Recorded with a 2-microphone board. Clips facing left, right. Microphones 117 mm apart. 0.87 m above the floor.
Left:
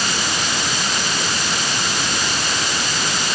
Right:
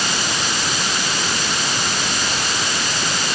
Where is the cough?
I don't hear a cough.